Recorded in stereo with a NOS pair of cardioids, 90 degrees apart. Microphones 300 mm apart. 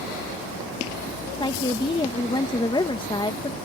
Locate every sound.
1.4 s a woman speaking: 15° left